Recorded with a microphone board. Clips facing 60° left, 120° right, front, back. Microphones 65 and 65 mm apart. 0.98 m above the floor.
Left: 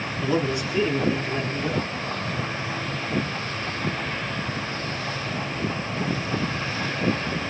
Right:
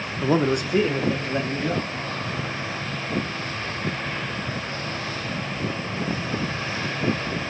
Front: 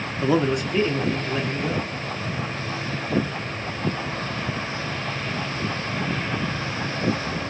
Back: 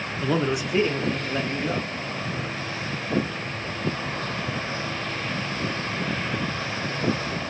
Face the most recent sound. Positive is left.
turn(degrees=-120)